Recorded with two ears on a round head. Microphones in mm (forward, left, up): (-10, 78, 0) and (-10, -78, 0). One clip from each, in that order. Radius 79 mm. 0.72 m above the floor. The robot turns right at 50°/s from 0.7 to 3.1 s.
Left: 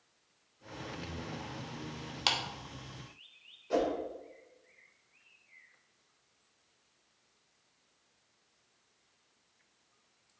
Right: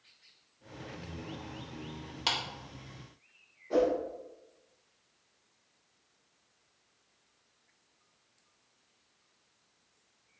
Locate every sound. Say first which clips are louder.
0.9 s singing: left 1 dB; 15° left, 2.5 m; by 2.2 s 75° left, 2.5 m
2.3 s a clap: left 1 dB; 25° left (ahead or behind), 1.2 m; by 2.4 s 30° left (ahead or behind), 1.2 m
3.7 s a whoosh: right 4 dB; 65° left (ahead or behind), 3 m